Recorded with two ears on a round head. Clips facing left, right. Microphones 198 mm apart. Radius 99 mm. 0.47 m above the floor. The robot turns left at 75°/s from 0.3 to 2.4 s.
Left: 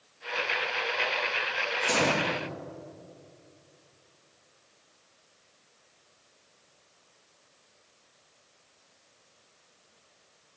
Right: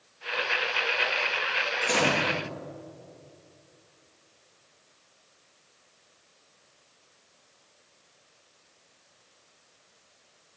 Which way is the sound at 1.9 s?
25° left.